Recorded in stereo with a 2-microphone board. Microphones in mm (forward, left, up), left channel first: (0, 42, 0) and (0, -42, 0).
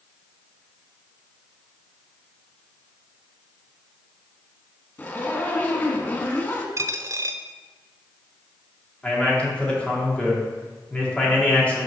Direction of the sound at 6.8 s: 40° right (ahead or behind).